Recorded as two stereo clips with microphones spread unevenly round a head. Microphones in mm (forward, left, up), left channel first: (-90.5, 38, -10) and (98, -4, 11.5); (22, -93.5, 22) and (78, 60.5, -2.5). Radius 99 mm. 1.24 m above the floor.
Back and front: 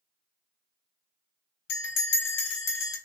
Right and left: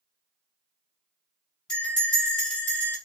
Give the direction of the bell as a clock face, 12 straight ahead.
6 o'clock.